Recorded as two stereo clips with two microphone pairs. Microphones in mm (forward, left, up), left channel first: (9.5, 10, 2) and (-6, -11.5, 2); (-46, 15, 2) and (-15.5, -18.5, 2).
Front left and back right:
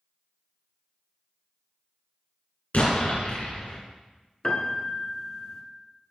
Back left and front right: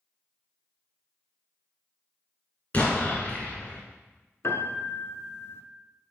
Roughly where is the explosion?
Left.